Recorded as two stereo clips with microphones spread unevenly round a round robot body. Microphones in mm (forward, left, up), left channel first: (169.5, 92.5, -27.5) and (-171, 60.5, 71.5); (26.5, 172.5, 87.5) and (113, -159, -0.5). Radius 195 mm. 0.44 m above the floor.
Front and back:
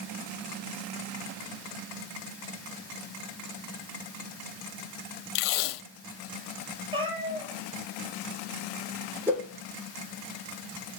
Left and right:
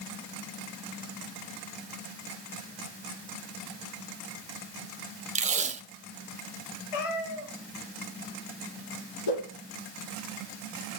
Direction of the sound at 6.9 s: 110° left.